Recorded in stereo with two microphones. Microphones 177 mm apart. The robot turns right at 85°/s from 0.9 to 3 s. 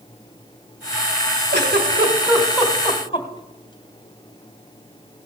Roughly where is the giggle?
Right.